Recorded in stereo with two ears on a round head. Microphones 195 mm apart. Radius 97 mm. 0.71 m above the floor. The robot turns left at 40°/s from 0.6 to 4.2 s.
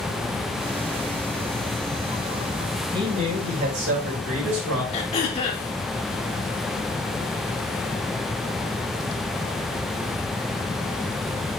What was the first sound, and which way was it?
A man speaking, 20° right.